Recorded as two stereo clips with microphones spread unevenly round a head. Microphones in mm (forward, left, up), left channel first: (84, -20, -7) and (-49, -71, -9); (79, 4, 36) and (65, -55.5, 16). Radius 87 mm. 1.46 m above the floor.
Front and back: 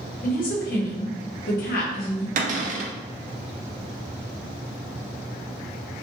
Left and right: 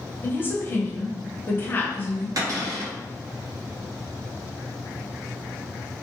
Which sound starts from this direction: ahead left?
A woman speaking, at 0.2 s.